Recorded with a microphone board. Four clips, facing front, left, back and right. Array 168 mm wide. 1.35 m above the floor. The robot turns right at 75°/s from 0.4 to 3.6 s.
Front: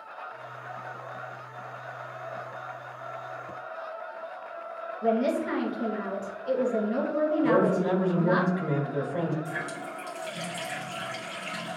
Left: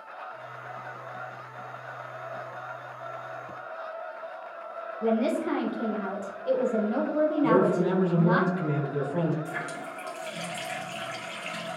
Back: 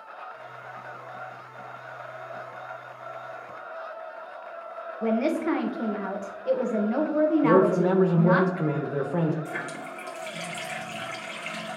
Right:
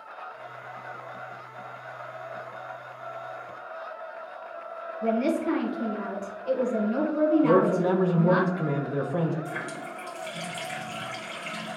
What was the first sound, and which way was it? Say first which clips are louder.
A woman speaking: right 1 dB, back 1 dB; 160° left.